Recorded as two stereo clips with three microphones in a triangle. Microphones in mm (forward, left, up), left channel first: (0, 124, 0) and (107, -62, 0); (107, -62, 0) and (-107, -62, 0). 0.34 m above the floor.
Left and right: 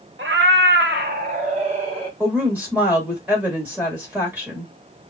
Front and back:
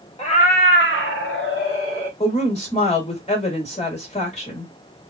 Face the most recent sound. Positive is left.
turn(degrees=15)